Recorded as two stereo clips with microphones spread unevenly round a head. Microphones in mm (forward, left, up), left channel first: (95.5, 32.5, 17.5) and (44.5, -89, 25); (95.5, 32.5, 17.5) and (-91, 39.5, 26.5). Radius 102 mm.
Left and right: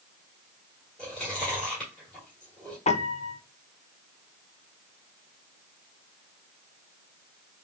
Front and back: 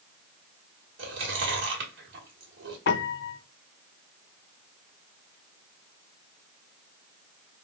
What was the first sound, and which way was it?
Chewing, 155° left.